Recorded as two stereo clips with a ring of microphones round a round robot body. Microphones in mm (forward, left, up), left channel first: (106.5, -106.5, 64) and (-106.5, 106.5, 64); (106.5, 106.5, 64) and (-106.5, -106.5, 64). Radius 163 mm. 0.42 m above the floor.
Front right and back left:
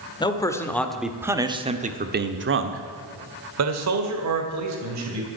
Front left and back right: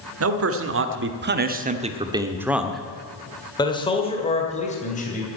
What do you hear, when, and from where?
0.2 s a man speaking: 115° right, 1.7 m; by 5.3 s 110° left, 3 m